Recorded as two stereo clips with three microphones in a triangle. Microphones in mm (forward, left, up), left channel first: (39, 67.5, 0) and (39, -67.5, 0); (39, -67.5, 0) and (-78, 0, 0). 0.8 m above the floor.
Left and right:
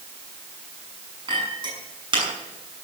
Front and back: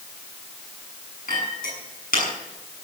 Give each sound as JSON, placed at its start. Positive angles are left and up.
{"t": 1.3, "sound": "a clink", "azimuth_deg": -35, "distance_m": 6.5}